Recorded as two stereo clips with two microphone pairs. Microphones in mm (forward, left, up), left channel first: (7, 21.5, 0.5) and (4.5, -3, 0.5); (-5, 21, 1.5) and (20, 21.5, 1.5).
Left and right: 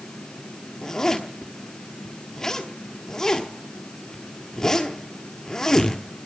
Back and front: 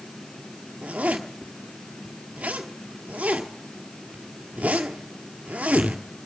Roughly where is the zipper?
Ahead.